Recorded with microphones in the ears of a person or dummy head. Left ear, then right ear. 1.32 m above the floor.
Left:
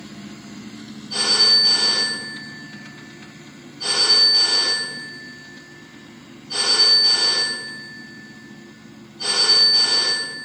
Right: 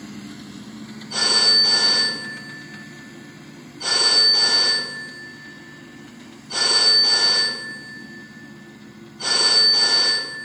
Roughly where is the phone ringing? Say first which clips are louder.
Left 1 dB; centre.